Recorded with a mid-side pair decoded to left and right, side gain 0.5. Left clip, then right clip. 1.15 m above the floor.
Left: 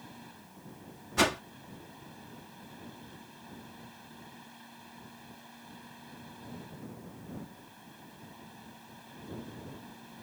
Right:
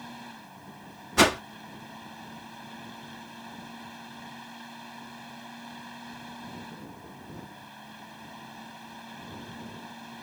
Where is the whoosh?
40° right.